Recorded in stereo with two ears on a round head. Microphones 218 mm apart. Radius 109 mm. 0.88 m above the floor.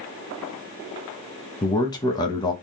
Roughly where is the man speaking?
Centre.